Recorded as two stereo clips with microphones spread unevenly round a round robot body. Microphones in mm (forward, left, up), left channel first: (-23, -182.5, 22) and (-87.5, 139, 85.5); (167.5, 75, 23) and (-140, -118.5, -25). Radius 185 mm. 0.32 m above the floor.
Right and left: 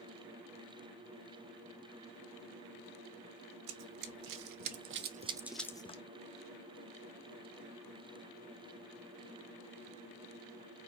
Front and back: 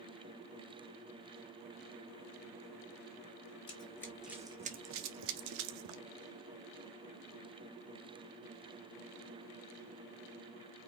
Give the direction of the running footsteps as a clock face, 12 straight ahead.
8 o'clock.